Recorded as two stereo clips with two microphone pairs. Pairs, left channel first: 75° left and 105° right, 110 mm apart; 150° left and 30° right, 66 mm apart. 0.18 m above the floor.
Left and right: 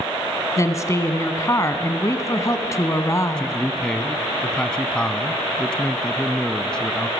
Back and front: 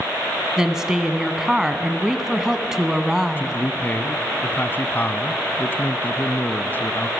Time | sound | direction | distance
0.6 | a woman speaking | 40° left | 1.6 m
3.4 | a man speaking | 150° left | 1.1 m